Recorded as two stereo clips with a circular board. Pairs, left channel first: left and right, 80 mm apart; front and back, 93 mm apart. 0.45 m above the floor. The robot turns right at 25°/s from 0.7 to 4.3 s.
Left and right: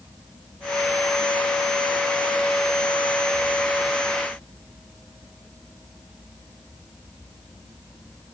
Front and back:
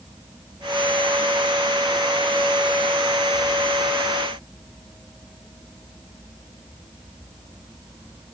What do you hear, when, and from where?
Only background noise.